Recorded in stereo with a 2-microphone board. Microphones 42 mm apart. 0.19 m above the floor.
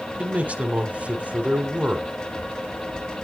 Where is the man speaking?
35° right (ahead or behind), 1.2 m.